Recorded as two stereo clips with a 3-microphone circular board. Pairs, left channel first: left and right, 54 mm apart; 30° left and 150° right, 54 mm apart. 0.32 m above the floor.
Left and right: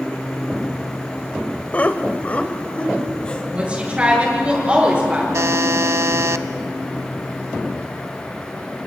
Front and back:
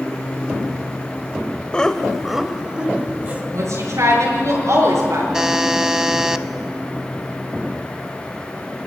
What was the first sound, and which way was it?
Laughter, 80° left.